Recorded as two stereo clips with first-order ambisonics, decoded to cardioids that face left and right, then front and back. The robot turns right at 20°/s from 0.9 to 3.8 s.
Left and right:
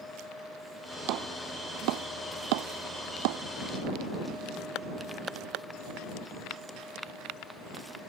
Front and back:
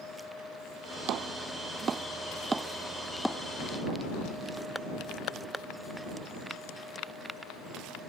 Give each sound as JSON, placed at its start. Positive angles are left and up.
{"t": 1.1, "sound": "chopping", "azimuth_deg": -130}